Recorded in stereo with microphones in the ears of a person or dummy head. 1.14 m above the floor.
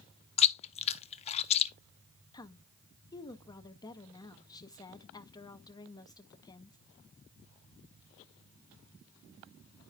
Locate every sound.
0.4 s chewing: 35° left (ahead or behind), 0.6 m
2.3 s a woman speaking: 25° left (ahead or behind), 0.7 m